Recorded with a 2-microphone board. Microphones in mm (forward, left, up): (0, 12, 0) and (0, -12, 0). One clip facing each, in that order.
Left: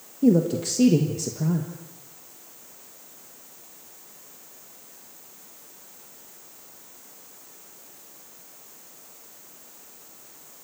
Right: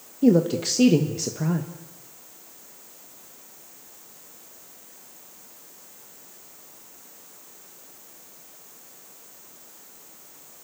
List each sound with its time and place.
0.2 s a woman speaking: 30° right (ahead or behind), 1.2 m